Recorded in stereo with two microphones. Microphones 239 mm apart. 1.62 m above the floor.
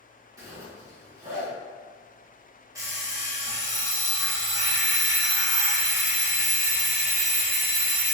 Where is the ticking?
I don't hear ticking.